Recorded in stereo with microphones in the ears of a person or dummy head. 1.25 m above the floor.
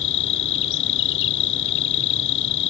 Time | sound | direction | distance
0.0 | an insect | 70° left (ahead or behind) | ?